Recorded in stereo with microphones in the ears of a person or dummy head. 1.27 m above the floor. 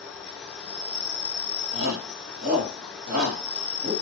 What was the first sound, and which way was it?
An insect, 10° left (ahead or behind).